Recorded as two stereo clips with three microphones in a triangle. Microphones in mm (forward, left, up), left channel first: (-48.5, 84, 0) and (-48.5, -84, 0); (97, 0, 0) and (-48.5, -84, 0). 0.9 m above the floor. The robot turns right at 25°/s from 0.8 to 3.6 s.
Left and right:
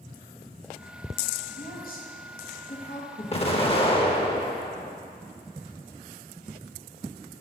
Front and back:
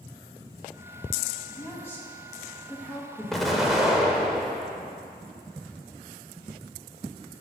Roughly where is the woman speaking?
Left.